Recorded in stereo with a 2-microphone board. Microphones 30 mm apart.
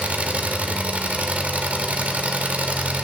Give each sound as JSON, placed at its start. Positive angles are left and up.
{"t": 0.0, "sound": "an engine running", "side_deg": -55, "distance_m": 1.5}